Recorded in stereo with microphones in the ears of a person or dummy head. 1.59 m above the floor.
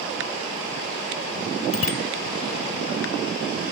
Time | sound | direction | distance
1.7 | a bicycle bell | 55° left (ahead or behind) | ?